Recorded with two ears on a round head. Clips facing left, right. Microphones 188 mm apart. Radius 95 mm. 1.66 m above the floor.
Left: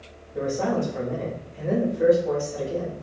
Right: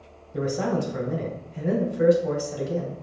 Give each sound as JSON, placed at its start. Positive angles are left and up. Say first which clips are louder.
{"t": 0.3, "sound": "a man speaking", "louder": "left 1 dB", "side_deg": -75, "distance_m": 1.2}